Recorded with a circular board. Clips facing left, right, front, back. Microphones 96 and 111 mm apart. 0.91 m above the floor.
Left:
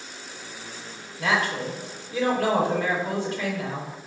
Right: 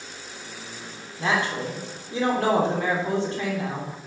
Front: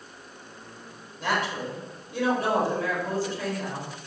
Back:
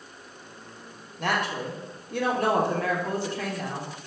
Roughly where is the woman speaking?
Behind right.